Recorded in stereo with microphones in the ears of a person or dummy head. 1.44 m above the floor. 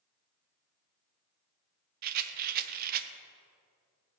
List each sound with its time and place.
2.0 s a rattle: 50° right (ahead or behind), 0.8 m